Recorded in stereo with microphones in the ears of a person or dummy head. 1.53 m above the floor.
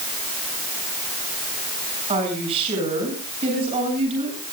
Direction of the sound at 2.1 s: 30° right (ahead or behind).